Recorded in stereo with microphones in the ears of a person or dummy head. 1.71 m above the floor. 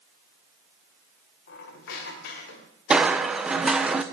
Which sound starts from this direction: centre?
Crushing, at 2.9 s.